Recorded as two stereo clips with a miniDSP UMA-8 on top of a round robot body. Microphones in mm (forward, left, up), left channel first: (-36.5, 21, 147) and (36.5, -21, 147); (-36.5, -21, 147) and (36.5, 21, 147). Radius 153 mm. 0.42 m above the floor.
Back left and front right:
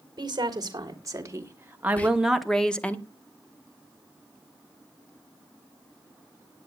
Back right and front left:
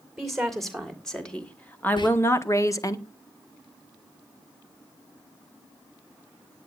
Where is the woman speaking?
60° right, 2.5 m; by 3.0 s 150° right, 1.5 m.